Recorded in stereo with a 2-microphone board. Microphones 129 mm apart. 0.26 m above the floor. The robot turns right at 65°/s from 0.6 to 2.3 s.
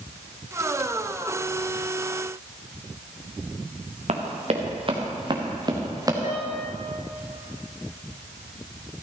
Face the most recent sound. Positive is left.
turn(degrees=75)  # may be behind; listen again after turning